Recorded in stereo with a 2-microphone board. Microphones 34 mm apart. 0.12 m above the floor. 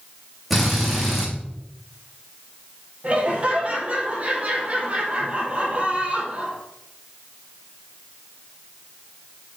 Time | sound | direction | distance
0.5 | a drill | centre (ahead or behind) | 5.5 m
3.0 | laughter | 40° right (ahead or behind) | 4.5 m